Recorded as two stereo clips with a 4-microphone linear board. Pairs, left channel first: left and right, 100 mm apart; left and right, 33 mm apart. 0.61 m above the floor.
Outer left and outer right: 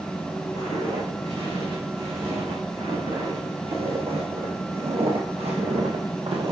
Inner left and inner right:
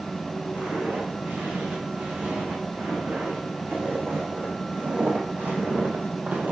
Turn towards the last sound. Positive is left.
turn(degrees=-60)  # may be behind; listen again after turning